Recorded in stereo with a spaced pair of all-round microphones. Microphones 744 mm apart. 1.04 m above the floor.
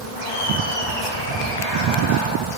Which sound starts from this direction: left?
Laughter, at 0.2 s.